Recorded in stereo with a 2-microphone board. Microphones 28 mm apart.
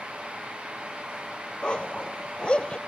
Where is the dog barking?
35° left (ahead or behind).